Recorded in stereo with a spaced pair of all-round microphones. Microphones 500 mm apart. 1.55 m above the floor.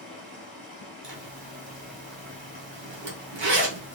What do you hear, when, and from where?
0.0 s running water: 40° left (ahead or behind), 2.5 m
1.0 s a zipper: 55° right (ahead or behind), 1.0 m